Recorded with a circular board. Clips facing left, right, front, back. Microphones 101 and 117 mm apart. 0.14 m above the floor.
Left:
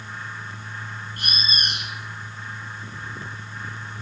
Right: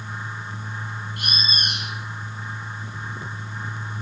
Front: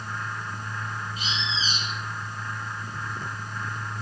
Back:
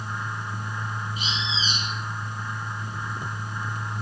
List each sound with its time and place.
1.2 s a bird: 120° left, 1.8 m